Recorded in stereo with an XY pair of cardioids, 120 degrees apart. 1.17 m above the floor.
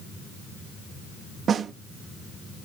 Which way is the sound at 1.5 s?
45° right.